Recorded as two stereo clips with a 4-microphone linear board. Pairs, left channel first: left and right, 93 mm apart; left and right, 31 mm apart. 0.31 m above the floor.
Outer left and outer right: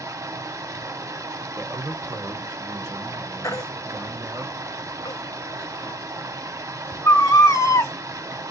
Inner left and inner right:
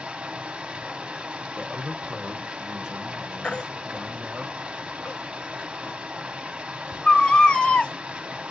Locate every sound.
0.0 s running water: 35° right (ahead or behind), 0.7 m
1.6 s a man speaking: 25° right (ahead or behind), 1.0 m
3.4 s a baby crying: 35° left (ahead or behind), 1.0 m